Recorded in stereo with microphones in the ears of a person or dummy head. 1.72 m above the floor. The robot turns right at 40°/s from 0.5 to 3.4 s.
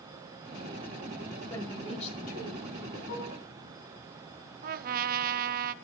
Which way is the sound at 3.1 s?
65° left (ahead or behind).